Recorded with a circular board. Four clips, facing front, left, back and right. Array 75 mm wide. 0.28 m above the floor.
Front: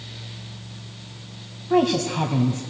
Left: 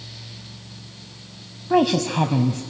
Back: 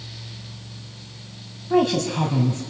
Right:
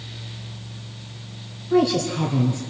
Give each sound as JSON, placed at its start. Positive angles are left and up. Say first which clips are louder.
{"t": 1.7, "sound": "a woman speaking", "louder": "left 1 dB, even", "azimuth_deg": 80, "distance_m": 1.9}